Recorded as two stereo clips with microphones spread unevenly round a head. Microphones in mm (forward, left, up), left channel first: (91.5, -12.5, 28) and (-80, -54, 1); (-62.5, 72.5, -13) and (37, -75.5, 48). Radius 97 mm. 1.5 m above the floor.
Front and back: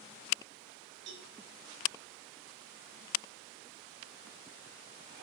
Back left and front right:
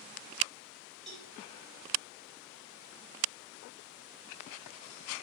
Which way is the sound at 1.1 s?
140° right.